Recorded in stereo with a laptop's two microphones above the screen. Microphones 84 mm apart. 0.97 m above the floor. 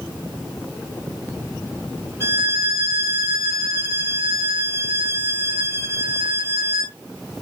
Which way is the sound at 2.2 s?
30° right (ahead or behind).